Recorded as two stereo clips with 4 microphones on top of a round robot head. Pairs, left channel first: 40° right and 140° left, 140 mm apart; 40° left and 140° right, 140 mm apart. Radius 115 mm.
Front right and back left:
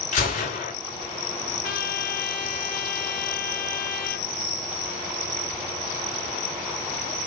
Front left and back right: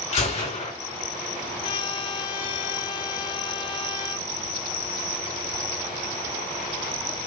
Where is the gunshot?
5° right, 3.5 m.